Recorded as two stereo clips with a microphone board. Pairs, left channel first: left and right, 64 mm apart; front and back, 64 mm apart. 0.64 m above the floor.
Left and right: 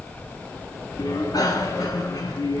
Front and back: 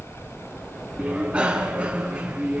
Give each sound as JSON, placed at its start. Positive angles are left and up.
{"t": 1.0, "sound": "a bicycle bell", "azimuth_deg": 105, "distance_m": 4.0}